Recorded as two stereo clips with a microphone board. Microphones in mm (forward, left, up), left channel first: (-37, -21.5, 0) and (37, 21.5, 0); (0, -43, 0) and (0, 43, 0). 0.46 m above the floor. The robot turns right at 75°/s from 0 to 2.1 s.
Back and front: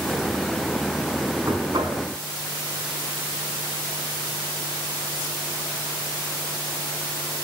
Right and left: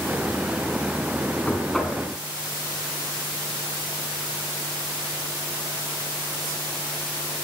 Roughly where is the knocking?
Ahead right.